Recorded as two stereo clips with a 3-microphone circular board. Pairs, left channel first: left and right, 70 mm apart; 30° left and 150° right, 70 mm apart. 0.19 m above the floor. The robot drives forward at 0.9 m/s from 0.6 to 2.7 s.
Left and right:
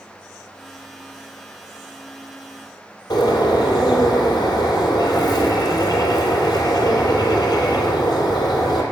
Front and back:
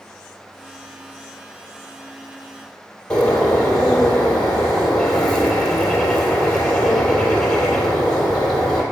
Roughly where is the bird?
Left.